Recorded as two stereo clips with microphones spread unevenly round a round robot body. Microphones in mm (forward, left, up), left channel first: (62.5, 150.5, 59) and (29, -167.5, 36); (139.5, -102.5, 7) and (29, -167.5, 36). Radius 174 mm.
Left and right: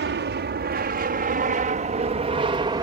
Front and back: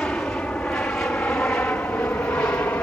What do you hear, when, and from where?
0.0 s an aircraft: 50° right; by 2.8 s 30° right